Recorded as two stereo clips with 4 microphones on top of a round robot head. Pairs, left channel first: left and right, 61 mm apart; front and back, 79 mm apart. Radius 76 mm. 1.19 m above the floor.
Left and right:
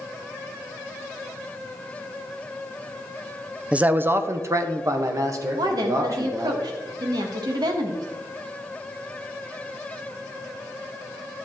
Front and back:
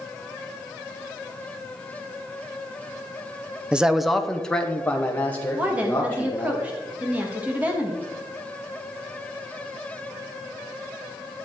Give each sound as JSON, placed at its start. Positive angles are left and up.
{"t": 3.7, "sound": "a man speaking", "azimuth_deg": -125, "distance_m": 0.6}
{"t": 5.5, "sound": "a woman speaking", "azimuth_deg": -105, "distance_m": 1.5}